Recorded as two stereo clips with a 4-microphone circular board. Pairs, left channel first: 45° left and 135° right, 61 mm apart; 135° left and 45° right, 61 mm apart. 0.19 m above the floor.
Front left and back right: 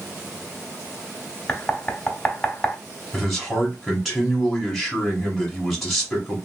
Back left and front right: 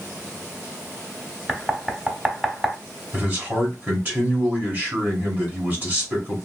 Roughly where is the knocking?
Ahead.